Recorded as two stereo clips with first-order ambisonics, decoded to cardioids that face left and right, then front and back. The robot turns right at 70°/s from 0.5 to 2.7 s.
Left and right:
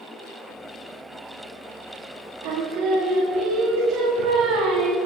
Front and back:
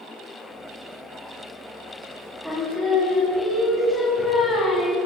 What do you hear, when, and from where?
2.4 s singing: 90° right, 2 m; by 5.0 s 70° right, 2 m